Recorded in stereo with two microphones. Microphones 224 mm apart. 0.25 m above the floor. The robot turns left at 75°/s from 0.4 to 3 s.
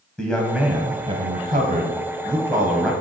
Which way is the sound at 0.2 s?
5° left.